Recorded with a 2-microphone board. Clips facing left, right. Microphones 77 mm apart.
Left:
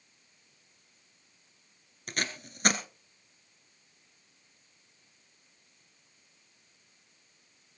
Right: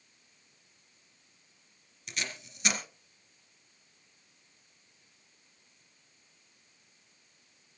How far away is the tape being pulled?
About 2 m.